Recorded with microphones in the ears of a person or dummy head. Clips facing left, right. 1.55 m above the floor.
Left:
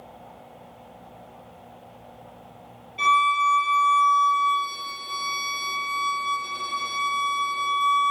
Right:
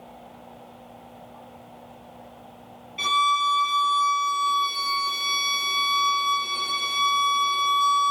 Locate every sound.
3.0 s a violin: centre (ahead or behind), 1.5 m